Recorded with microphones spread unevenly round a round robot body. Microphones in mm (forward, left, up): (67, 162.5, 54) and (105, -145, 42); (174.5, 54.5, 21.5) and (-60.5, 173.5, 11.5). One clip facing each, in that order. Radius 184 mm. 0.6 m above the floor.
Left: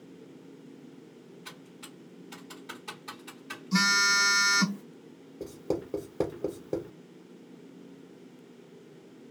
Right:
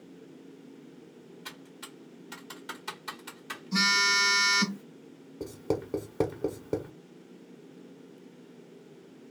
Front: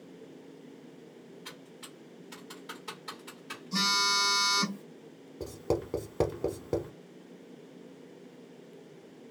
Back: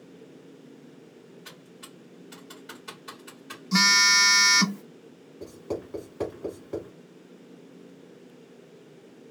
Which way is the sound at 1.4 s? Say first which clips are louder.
Even, back 1 dB; 125° right.